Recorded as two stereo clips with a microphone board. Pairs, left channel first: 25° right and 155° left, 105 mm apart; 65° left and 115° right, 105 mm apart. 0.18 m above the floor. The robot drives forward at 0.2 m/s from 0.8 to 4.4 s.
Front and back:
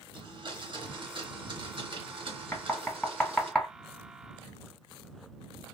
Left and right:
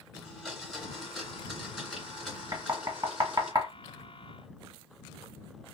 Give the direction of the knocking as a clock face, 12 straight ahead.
3 o'clock.